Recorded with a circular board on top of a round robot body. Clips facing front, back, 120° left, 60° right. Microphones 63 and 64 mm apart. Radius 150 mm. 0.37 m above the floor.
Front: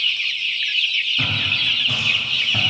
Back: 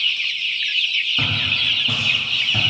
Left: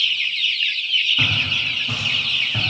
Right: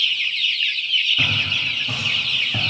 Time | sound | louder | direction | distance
1.2 | footsteps | even, even | 150° right | 1.3 m